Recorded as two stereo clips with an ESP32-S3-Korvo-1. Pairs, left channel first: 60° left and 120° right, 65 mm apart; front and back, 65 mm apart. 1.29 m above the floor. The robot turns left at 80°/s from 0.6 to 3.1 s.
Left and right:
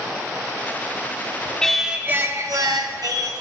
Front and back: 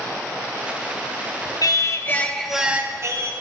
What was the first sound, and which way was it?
Singing, 20° right.